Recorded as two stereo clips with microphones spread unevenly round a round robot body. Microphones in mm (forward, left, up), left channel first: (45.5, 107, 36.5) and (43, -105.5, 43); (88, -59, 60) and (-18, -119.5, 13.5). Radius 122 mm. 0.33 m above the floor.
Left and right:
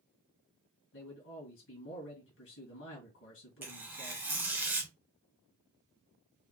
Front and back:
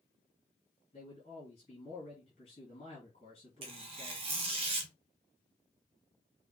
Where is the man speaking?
90° left, 2 m.